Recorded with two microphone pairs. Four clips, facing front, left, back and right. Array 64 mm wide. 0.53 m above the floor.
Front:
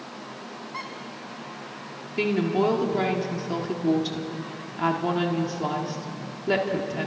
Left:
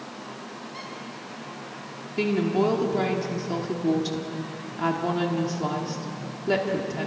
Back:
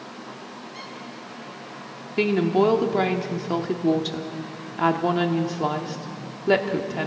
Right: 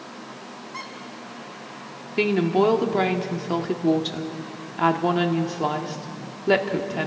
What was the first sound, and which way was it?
A squeak, 35° right.